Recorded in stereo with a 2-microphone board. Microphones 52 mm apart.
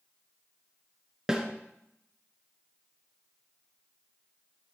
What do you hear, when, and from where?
1.3 s a snare drum: 10° right (ahead or behind), 1.5 m